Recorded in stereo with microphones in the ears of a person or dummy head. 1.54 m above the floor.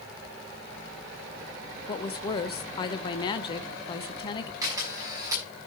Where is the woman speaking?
30° left (ahead or behind), 0.7 m.